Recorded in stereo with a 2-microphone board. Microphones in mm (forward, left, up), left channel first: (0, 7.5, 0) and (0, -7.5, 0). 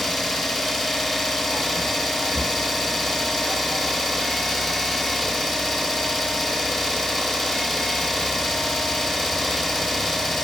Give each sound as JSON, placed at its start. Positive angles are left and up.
{"t": 0.0, "sound": "an engine running", "side_deg": 20, "distance_m": 0.9}